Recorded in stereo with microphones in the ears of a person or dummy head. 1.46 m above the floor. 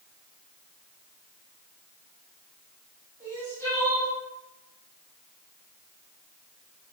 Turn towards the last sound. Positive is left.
turn(degrees=25)  # may be behind; listen again after turning